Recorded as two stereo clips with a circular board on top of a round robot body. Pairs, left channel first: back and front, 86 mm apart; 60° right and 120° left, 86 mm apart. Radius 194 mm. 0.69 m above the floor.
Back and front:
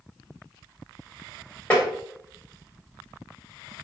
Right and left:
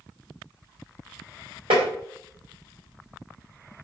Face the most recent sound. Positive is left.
turn(degrees=110)